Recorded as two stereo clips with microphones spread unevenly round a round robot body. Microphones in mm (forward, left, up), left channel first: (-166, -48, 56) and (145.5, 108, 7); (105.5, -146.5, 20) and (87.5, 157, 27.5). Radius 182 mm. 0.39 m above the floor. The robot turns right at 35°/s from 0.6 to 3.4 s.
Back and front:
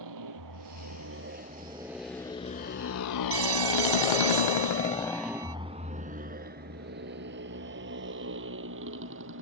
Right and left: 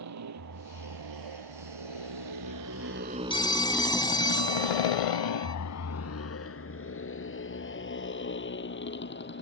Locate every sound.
0.0 s a motorcycle: 60° left; by 9.4 s 30° right
3.3 s a phone ringing: 15° right; by 5.5 s 10° right